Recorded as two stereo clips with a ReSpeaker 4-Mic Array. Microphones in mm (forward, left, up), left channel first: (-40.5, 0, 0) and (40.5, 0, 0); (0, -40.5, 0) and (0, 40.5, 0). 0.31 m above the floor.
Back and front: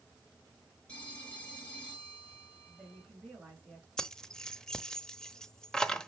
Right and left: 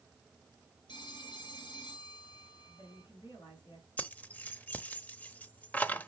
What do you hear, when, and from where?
0.9 s a phone ringing: 105° right, 3.5 m
2.7 s a woman speaking: 80° right, 4.5 m
4.0 s keys jangling: 110° right, 0.7 m